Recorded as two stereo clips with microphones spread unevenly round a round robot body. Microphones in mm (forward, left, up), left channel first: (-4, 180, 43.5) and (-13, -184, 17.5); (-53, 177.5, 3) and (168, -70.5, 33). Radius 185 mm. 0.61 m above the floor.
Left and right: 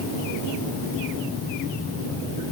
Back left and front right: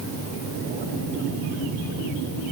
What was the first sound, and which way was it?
Only background noise.